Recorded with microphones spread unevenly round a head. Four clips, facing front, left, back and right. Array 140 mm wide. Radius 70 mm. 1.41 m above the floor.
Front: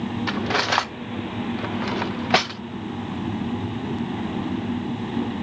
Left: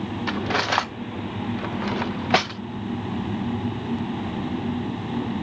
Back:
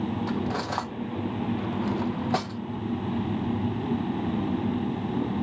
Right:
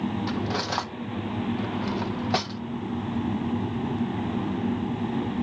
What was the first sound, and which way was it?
Cutlery clinking, 35° left.